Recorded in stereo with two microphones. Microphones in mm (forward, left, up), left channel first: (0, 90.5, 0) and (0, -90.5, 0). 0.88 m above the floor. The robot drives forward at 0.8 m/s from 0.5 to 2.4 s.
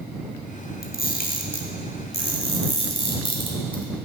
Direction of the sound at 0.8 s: 60° left (ahead or behind).